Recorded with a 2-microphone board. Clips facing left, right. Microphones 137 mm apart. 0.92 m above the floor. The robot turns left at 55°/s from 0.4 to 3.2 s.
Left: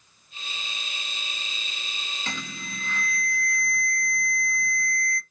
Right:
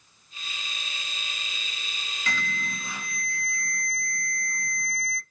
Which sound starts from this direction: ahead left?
An alarm, at 2.3 s.